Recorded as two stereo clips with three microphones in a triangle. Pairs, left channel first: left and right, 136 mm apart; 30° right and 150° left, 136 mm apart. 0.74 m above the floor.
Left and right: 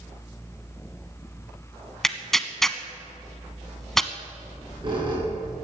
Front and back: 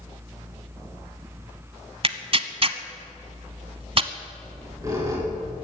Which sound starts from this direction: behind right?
A squeak, at 4.4 s.